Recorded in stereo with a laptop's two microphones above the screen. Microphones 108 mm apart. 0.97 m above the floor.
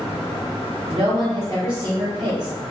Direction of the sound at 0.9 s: 45° right (ahead or behind).